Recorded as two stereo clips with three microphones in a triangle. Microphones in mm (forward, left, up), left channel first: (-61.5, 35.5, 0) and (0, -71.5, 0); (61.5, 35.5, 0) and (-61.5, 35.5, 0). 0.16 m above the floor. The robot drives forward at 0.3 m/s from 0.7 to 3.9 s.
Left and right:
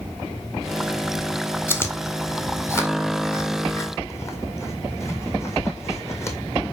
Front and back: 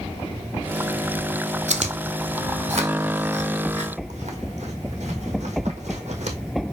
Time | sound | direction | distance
1.7 | chewing | 170° right | 1.1 m